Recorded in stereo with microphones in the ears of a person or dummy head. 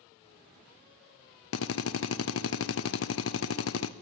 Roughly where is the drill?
Left.